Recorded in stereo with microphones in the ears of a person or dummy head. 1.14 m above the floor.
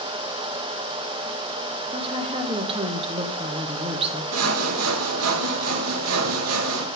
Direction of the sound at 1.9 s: 30° right (ahead or behind).